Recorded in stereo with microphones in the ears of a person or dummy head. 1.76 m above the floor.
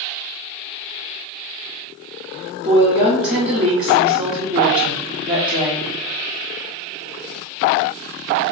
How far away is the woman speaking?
About 0.6 m.